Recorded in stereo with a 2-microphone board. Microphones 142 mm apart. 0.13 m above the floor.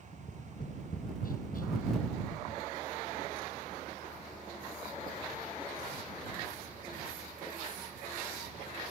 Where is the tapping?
70° left (ahead or behind).